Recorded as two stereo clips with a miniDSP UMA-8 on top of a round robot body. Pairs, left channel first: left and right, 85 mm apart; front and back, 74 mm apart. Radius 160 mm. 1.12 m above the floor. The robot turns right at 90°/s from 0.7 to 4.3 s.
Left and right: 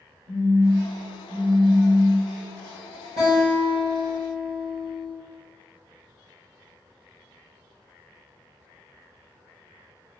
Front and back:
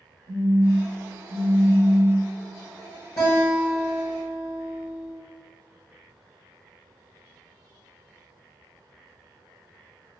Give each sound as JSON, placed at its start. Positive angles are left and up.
{"t": 0.3, "sound": "a phone buzzing", "azimuth_deg": -65, "distance_m": 1.1}
{"t": 3.2, "sound": "a guitar", "azimuth_deg": -45, "distance_m": 0.9}